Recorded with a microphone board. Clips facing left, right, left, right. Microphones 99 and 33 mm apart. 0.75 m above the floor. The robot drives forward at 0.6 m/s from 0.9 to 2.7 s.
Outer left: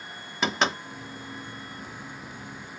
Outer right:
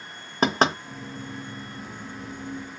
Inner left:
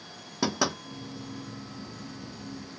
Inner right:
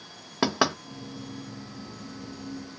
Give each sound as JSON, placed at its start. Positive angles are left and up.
{"t": 0.4, "sound": "knocking", "side_deg": -40, "distance_m": 1.1}